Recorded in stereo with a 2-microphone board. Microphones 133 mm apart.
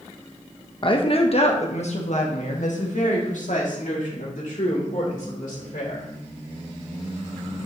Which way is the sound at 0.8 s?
40° left (ahead or behind).